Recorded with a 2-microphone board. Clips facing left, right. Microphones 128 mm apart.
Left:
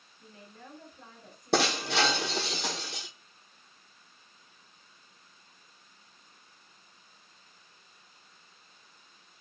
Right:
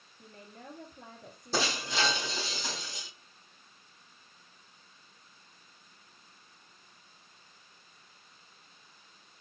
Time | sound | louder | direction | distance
0.2 | a woman speaking | right 1 dB | 55° right (ahead or behind) | 3.5 m
1.5 | breaking glass | left 5 dB | 75° left (ahead or behind) | 1.6 m